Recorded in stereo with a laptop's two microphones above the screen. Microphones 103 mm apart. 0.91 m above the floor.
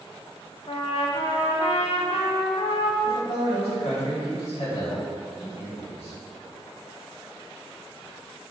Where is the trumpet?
65° left (ahead or behind), 0.5 m.